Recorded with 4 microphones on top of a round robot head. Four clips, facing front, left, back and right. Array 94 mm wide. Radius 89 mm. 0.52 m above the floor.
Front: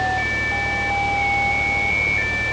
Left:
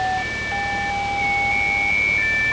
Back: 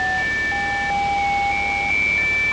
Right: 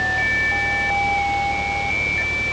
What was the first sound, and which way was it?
Only background noise.